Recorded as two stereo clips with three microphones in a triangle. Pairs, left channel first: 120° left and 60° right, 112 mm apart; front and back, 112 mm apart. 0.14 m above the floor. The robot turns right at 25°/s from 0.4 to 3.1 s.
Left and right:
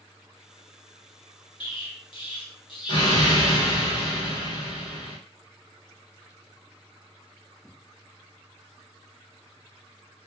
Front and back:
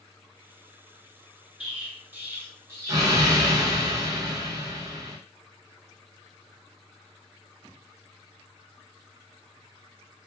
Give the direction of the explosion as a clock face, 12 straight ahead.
9 o'clock.